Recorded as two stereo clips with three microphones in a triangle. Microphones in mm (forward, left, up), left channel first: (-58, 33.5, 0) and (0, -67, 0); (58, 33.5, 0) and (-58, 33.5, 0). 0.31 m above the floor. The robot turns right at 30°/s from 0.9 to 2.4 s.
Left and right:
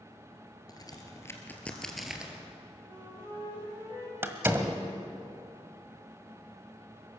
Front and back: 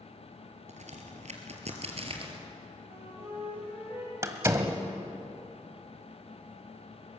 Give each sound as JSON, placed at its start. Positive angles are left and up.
{"t": 0.7, "sound": "a crack", "azimuth_deg": 175, "distance_m": 2.5}
{"t": 2.8, "sound": "a flute", "azimuth_deg": -110, "distance_m": 9.0}
{"t": 4.2, "sound": "a door slam", "azimuth_deg": -125, "distance_m": 1.4}